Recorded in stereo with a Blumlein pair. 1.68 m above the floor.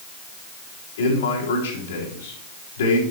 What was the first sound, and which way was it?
A man speaking, 65° left.